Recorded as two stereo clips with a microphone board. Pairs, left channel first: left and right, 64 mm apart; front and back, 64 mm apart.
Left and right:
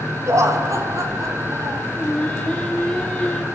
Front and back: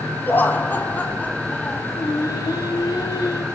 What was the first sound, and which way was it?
Laughter, 55° right.